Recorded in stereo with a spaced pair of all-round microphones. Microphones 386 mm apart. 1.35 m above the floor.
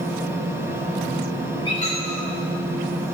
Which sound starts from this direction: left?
A squeak, at 1.6 s.